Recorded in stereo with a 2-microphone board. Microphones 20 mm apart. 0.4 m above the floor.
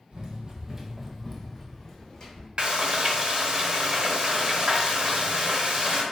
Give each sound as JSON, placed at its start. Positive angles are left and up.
{"t": 0.1, "sound": "running footsteps", "side_deg": -50, "distance_m": 0.7}
{"t": 2.6, "sound": "frying", "side_deg": -45, "distance_m": 0.6}